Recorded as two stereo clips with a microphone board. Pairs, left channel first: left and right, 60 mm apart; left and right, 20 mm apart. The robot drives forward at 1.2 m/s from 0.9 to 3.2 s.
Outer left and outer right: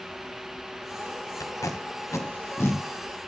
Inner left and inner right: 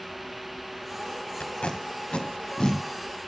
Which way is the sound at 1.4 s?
75° left (ahead or behind).